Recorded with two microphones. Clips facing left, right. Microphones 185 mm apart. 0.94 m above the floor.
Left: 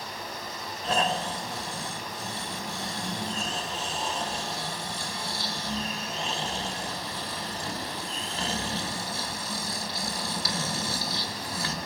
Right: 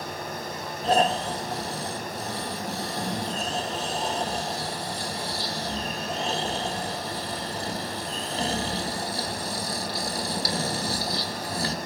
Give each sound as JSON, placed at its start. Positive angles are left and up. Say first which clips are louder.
{"t": 0.8, "sound": "snoring", "louder": "right 5 dB", "side_deg": -35, "distance_m": 1.9}